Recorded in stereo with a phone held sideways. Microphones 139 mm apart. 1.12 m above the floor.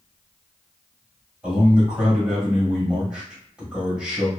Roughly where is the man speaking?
Centre.